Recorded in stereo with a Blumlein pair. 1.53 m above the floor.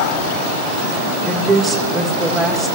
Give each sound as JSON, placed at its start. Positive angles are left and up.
{"t": 1.2, "sound": "a woman speaking", "azimuth_deg": -15, "distance_m": 1.9}